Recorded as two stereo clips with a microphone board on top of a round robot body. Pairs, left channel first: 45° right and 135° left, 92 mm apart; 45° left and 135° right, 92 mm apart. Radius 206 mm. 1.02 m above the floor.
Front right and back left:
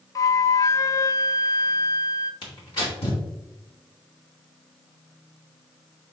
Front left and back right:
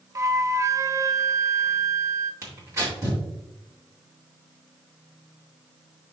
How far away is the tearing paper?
About 2.5 m.